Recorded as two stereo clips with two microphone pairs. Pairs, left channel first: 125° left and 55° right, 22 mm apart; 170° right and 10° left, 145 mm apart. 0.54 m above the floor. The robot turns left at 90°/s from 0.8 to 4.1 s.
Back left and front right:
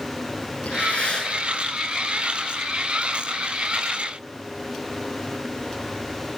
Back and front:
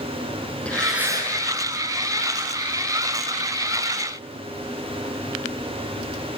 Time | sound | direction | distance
0.7 | breathing | 110° left | 6.5 m